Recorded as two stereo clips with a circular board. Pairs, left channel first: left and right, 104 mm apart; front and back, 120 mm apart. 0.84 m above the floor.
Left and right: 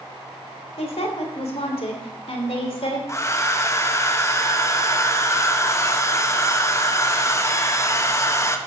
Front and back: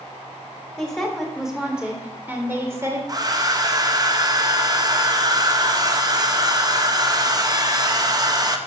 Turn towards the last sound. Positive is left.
turn(degrees=140)